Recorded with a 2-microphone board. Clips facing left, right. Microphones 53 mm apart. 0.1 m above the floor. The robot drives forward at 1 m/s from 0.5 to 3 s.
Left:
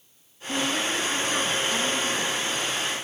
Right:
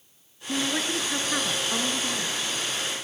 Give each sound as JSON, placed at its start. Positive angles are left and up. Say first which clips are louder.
{"t": 0.5, "sound": "a woman speaking", "louder": "left 1 dB", "side_deg": -25, "distance_m": 1.6}